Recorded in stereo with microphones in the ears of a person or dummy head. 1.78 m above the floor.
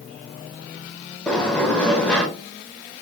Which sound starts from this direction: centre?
A sliding door, at 1.3 s.